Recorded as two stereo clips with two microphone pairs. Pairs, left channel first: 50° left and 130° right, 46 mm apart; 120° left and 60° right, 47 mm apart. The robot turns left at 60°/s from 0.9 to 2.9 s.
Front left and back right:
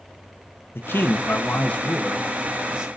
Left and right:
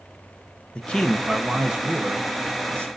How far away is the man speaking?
About 0.8 m.